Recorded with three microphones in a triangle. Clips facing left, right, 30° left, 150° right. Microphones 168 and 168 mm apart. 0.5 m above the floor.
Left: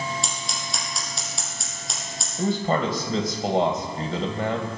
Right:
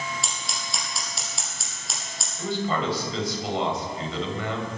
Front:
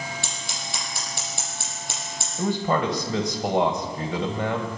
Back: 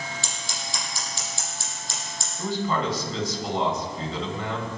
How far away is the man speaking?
About 2.5 m.